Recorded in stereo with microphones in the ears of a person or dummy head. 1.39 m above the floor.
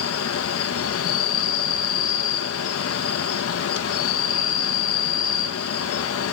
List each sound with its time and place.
0.0 s an insect: 80° left, 1.6 m